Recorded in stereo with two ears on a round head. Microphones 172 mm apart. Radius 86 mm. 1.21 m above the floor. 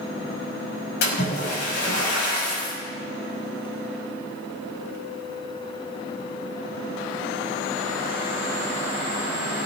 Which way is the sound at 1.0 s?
65° left (ahead or behind).